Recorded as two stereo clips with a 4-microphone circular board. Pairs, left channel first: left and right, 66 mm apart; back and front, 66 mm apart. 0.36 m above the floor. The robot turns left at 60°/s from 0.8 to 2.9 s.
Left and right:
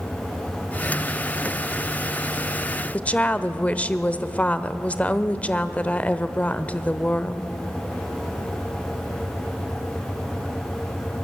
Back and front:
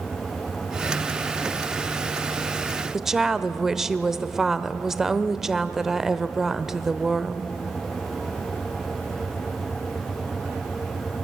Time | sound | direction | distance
2.9 | a woman speaking | 75° left | 0.9 m